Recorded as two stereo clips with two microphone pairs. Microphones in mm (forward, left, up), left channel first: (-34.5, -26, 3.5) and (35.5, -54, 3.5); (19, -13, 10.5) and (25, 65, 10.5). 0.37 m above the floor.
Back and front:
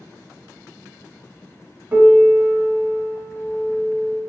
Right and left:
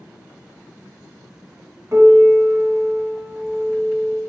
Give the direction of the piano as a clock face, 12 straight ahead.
11 o'clock.